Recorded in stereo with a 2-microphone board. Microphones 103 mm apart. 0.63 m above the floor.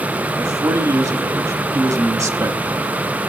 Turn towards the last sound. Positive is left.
turn(degrees=-35)  # may be behind; listen again after turning